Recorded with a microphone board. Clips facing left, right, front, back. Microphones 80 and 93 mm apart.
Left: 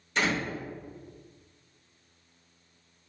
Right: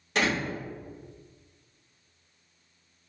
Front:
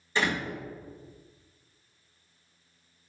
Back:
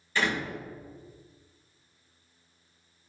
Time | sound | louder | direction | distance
0.1 | a door slam | right 1 dB, even | 70° right | 1.7 m